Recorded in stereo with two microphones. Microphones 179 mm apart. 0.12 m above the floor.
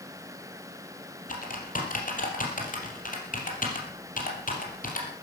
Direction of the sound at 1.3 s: 50° left (ahead or behind).